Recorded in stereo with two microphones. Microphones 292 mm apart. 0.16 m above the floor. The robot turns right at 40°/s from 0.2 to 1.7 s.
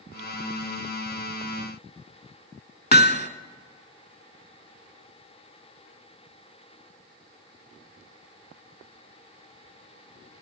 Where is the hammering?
35° left (ahead or behind), 0.7 m.